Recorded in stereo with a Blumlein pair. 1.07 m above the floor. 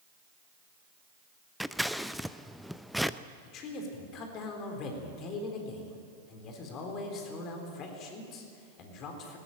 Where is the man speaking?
35° left, 4 m.